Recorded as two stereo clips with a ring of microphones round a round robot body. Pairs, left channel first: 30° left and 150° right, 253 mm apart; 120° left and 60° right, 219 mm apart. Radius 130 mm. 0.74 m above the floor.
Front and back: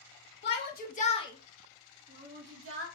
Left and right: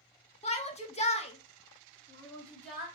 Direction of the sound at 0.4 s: 65° left.